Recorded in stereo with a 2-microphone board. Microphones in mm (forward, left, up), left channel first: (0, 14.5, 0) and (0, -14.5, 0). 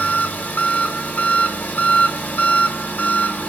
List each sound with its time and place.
0.0 s an engine running: 80° left, 1.0 m